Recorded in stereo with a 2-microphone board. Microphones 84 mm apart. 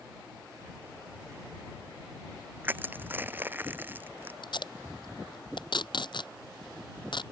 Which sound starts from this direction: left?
Tape being pulled, at 4.4 s.